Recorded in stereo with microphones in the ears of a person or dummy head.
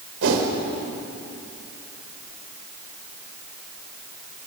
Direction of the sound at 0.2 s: 80° right.